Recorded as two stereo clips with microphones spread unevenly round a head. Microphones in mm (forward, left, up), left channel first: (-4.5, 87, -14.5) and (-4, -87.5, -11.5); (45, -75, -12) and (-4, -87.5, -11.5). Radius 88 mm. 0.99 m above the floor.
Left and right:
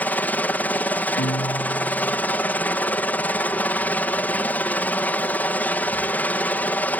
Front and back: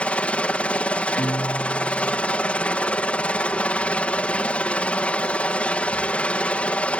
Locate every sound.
0.0 s a helicopter: 20° left
1.2 s a guitar: 50° left